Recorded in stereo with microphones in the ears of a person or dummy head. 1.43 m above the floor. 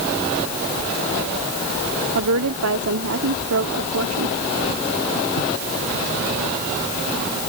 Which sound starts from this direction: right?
A woman speaking, at 2.1 s.